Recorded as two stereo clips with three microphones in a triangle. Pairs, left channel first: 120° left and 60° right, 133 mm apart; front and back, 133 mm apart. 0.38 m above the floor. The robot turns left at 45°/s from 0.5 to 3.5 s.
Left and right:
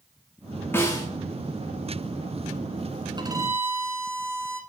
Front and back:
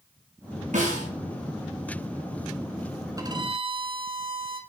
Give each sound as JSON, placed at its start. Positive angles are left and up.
{"t": 0.7, "sound": "a snare drum", "azimuth_deg": -170, "distance_m": 4.0}
{"t": 3.2, "sound": "a violin", "azimuth_deg": -115, "distance_m": 1.2}